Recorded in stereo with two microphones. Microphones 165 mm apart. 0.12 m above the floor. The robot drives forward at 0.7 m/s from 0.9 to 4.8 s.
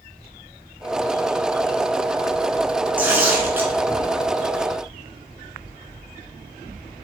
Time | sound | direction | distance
3.0 | tearing paper | 10° right (ahead or behind) | 0.8 m